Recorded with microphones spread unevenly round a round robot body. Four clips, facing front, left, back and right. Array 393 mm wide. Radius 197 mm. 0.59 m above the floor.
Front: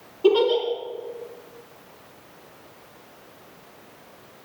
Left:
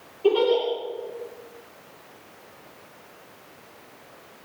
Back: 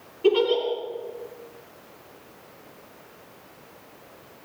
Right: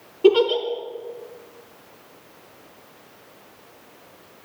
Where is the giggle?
80° right, 5.5 m.